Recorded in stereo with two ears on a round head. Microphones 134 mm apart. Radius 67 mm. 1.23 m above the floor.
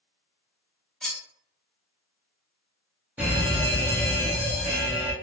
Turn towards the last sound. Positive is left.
turn(degrees=-10)  # may be behind; listen again after turning